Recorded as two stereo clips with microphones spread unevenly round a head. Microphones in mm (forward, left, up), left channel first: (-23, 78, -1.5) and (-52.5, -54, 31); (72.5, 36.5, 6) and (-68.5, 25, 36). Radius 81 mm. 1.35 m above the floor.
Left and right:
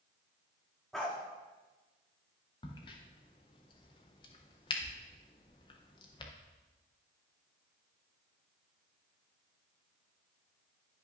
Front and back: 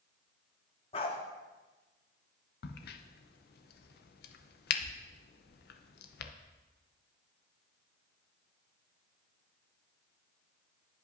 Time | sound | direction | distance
0.9 | a dog barking | 35° right | 0.9 m
2.6 | a crack | 15° left | 0.6 m